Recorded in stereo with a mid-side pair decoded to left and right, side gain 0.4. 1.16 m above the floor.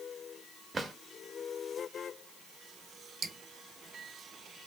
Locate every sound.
0.7 s a drawer: 35° right, 1.1 m
3.2 s dripping: 55° right, 1.0 m